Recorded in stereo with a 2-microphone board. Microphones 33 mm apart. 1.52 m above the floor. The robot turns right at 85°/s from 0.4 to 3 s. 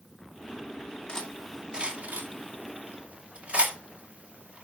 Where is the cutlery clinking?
25° left (ahead or behind), 2.5 m; by 4.6 s 40° right (ahead or behind), 2.5 m.